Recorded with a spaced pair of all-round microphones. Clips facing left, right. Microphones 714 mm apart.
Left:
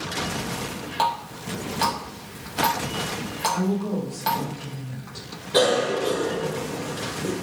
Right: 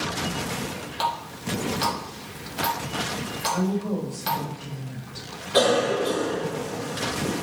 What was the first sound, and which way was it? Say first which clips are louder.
A running tap: left 2 dB; 70° left (ahead or behind).